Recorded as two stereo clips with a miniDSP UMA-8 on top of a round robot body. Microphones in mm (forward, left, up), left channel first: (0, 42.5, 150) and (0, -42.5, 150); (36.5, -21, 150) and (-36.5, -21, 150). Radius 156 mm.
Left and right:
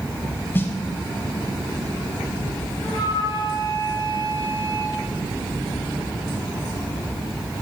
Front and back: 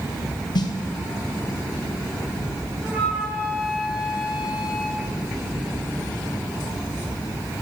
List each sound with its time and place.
0.6 s a snare drum: 25° left, 0.7 m
2.8 s a flute: 110° left, 4 m